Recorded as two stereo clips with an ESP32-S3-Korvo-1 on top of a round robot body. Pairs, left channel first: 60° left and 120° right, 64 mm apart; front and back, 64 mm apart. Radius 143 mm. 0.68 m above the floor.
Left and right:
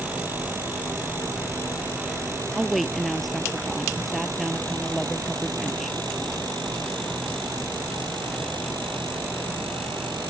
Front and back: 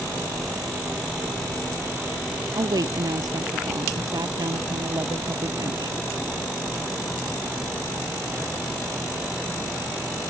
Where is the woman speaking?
150° left.